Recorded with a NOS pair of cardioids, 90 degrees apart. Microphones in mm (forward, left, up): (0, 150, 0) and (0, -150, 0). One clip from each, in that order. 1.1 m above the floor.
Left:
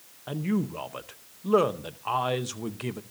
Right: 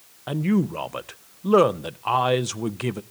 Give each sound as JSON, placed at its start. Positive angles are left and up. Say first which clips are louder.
{"t": 0.3, "sound": "a man speaking", "louder": "right 6 dB", "azimuth_deg": -25, "distance_m": 0.7}